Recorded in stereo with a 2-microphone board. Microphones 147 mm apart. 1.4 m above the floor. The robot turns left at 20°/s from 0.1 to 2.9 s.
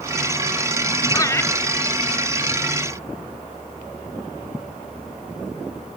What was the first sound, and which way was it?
Laughter, 25° left (ahead or behind).